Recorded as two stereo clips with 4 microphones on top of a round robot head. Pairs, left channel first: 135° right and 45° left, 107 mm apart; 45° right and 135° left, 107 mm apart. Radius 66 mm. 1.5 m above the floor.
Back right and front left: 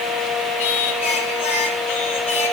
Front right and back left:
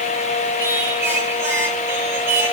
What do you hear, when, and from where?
0.6 s singing: 155° right, 3 m